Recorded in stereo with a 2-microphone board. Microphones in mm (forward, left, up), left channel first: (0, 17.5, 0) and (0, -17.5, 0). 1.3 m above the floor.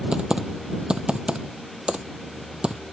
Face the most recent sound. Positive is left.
turn(degrees=-25)  # may be behind; listen again after turning